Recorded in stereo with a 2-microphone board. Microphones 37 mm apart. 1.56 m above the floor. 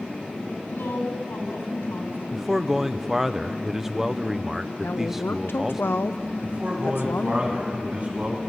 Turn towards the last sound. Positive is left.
turn(degrees=-40)  # may be behind; listen again after turning